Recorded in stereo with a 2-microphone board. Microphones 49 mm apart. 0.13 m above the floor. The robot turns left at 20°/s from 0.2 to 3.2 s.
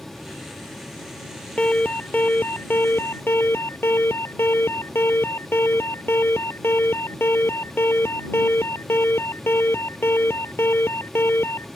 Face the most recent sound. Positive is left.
turn(degrees=120)